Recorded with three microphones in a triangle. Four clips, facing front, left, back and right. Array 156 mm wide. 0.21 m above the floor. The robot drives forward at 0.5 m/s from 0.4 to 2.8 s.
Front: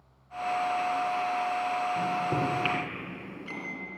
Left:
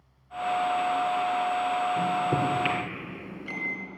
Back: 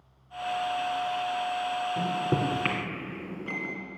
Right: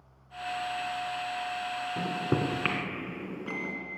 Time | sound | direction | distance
2.0 | a microwave | 110° right | 2.5 m